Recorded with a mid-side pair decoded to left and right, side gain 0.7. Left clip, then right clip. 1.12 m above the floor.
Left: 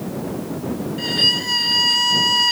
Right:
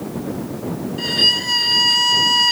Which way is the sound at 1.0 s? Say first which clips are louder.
Right 2 dB; 10° right.